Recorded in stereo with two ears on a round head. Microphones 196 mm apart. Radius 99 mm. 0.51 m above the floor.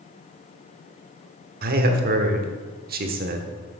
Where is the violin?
I don't hear a violin.